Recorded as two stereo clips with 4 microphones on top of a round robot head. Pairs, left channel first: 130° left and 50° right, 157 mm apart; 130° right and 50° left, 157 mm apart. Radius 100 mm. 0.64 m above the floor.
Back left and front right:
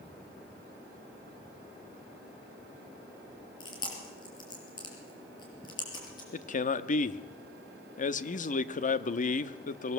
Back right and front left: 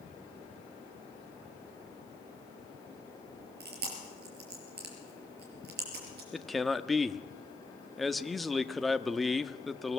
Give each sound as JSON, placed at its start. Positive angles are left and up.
{"t": 3.6, "sound": "chewing", "azimuth_deg": 65, "distance_m": 5.5}
{"t": 6.3, "sound": "a man speaking", "azimuth_deg": 140, "distance_m": 1.0}